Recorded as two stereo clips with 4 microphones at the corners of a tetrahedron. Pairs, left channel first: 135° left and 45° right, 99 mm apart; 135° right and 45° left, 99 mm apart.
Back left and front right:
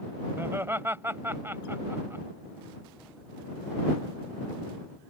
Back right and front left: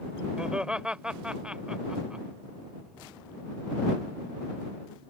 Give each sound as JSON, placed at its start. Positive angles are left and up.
{"t": 0.4, "sound": "laughter", "azimuth_deg": -25}